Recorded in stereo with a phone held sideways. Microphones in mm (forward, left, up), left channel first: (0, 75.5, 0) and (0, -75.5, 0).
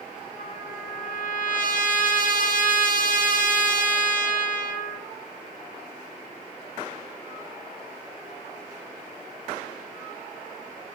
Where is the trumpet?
65° left (ahead or behind), 1.7 m.